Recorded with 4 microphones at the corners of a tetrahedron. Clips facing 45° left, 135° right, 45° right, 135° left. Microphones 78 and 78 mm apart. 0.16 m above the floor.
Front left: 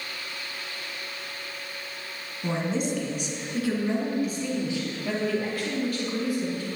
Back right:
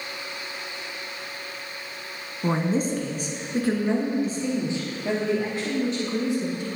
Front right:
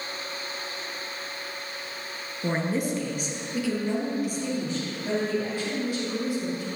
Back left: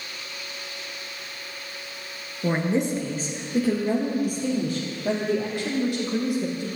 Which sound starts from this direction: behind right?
A woman speaking, at 2.4 s.